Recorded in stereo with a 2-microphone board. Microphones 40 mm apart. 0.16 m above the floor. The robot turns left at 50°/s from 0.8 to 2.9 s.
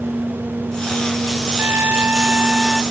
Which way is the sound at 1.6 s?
110° right.